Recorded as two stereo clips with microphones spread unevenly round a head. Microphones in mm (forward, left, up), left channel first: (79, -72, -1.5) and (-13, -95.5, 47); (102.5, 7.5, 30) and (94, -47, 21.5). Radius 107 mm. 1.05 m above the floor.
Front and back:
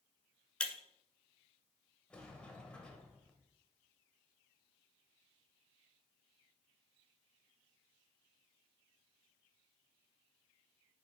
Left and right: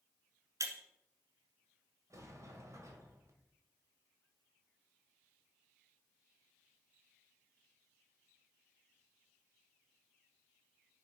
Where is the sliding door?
75° right, 2 m.